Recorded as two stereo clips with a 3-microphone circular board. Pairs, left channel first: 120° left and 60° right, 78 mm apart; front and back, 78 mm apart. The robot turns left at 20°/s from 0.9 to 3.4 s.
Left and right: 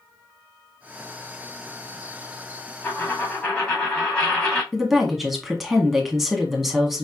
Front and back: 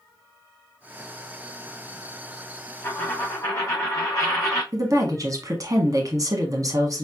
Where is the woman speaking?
145° right, 1.5 m.